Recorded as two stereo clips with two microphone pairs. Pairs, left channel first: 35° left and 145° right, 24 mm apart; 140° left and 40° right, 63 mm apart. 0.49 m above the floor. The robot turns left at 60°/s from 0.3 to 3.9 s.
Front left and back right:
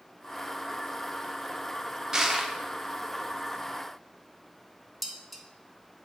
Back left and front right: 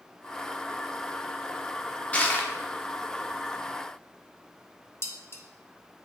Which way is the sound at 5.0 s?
130° left.